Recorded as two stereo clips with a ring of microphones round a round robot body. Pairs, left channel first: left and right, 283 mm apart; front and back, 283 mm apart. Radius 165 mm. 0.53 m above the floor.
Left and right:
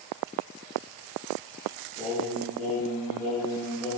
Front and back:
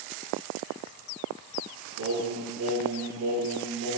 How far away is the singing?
About 5 m.